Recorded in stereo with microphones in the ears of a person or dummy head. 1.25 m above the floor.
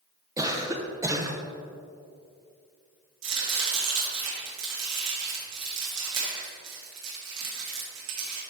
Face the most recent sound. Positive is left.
turn(degrees=-65)  # may be behind; listen again after turning